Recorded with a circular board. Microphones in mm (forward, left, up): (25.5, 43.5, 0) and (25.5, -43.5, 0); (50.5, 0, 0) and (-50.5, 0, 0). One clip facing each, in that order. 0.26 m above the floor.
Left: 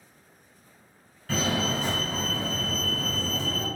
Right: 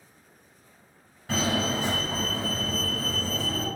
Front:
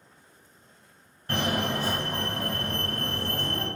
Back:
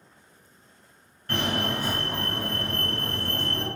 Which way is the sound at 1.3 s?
50° right.